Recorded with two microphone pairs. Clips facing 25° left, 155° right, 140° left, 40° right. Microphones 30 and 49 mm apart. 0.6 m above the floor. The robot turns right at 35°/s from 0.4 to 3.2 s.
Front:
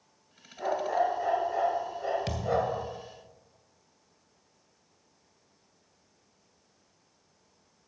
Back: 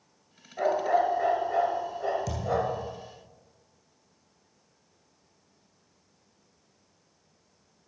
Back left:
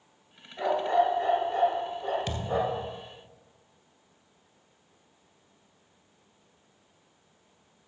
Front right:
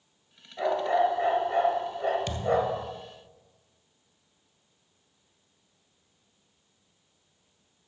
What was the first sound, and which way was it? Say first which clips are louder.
A dog barking: back 4 dB, even; 130° right.